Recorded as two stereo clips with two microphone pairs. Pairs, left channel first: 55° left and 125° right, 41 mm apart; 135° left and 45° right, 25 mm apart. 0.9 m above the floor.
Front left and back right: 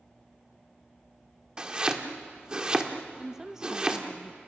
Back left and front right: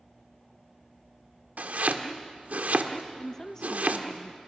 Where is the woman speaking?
175° left, 0.8 m.